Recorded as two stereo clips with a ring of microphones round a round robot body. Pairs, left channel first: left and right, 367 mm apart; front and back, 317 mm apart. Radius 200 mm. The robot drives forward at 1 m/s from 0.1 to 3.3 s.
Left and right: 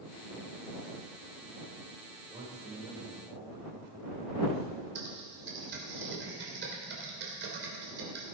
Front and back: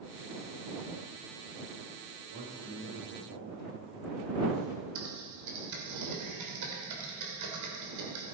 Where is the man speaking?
170° right, 3 m.